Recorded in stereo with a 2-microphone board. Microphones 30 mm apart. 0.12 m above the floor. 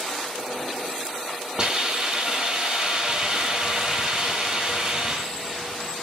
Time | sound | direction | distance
1.6 | a hiss | 30° right (ahead or behind) | 1.2 m